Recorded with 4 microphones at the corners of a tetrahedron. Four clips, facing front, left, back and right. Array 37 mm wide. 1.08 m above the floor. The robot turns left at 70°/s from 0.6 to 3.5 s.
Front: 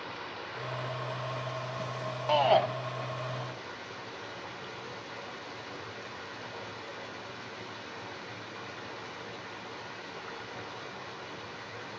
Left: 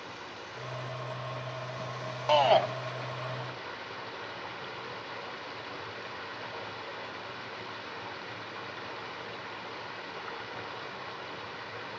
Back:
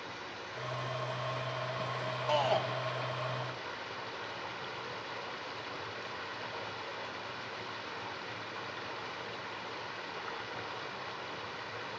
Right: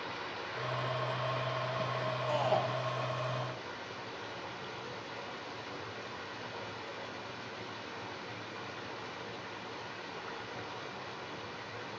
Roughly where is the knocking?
No knocking in this recording.